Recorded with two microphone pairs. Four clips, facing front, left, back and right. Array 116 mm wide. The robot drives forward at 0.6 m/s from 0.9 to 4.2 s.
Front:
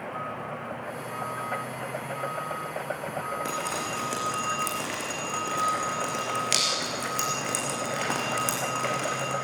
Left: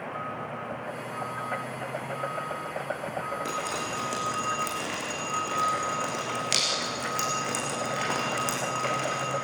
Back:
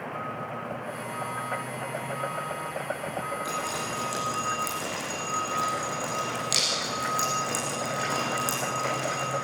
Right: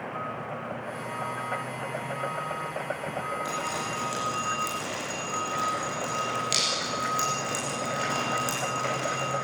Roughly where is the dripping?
Ahead left.